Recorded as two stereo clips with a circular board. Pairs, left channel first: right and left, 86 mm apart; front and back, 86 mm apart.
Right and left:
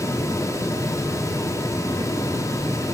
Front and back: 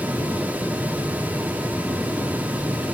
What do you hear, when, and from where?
Only background noise.